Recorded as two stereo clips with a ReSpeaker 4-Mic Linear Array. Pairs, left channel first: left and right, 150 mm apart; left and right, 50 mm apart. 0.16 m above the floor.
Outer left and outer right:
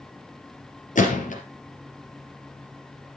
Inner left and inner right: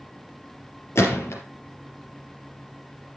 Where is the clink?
I don't hear a clink.